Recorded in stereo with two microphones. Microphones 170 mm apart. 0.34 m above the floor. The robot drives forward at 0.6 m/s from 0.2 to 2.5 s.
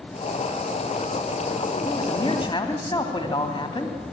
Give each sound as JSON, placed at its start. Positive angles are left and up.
{"t": 1.9, "sound": "a man speaking", "side_deg": 25, "distance_m": 3.0}